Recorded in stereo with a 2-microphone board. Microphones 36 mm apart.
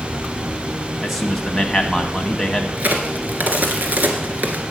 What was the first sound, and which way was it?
A man speaking, 5° left (ahead or behind).